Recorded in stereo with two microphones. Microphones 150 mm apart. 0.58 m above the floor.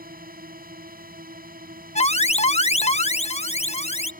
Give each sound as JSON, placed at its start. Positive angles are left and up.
{"t": 0.0, "sound": "a drone", "side_deg": -75}
{"t": 1.9, "sound": "an alarm", "side_deg": 45}